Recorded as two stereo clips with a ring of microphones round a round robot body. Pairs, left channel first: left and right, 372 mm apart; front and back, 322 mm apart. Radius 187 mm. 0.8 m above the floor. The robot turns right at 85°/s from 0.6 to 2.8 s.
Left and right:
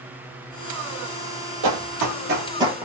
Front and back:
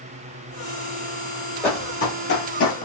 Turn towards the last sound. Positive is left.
turn(degrees=-10)